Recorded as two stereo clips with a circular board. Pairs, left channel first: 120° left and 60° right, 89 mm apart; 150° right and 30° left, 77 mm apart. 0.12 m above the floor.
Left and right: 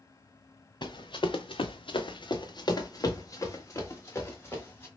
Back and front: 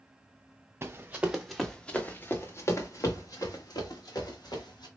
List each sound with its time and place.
0.8 s running footsteps: 90° left, 0.8 m; by 4.9 s 175° right, 2 m